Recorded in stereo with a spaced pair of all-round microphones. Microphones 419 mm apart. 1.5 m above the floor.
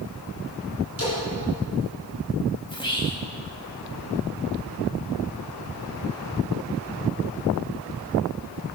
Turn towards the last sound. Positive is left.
turn(degrees=10)  # may be behind; listen again after turning